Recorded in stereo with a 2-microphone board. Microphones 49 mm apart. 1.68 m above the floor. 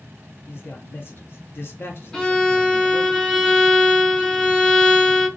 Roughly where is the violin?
Centre.